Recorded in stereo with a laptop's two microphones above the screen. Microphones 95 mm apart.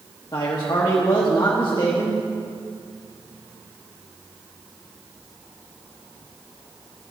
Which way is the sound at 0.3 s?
45° left (ahead or behind).